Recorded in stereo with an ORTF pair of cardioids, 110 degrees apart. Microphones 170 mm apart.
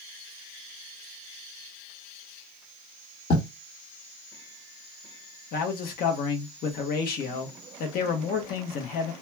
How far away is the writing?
About 1.2 m.